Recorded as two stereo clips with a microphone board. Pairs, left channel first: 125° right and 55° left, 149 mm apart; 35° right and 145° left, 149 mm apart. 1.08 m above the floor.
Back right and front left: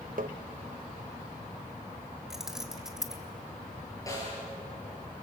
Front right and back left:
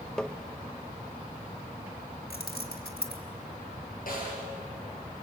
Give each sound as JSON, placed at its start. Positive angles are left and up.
{"t": 0.2, "sound": "tapping", "azimuth_deg": 50, "distance_m": 0.6}
{"t": 2.3, "sound": "keys jangling", "azimuth_deg": -30, "distance_m": 1.8}
{"t": 4.1, "sound": "a snare drum", "azimuth_deg": -55, "distance_m": 8.0}